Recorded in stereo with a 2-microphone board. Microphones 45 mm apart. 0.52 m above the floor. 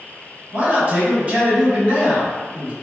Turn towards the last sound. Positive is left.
turn(degrees=-35)  # may be behind; listen again after turning